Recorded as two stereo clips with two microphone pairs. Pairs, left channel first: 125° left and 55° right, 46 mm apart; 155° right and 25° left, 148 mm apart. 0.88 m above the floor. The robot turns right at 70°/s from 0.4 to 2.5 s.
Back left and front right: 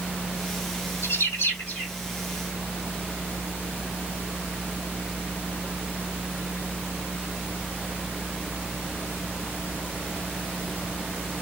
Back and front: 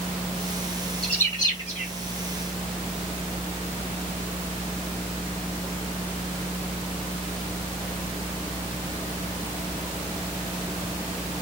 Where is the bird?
115° left, 8.5 m; by 1.9 s straight behind, 8.5 m.